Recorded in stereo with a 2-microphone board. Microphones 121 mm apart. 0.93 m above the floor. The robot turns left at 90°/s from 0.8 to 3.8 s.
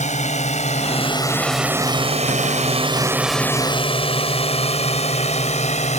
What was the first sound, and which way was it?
A drone, 80° left.